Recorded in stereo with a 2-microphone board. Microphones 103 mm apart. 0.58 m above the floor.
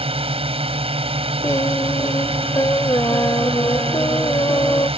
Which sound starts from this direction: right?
A drone, at 0.0 s.